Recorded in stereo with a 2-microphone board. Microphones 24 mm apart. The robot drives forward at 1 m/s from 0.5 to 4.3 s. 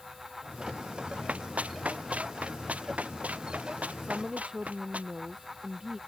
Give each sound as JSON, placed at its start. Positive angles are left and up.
{"t": 1.3, "sound": "running footsteps", "side_deg": -65}
{"t": 4.0, "sound": "a woman speaking", "side_deg": -20}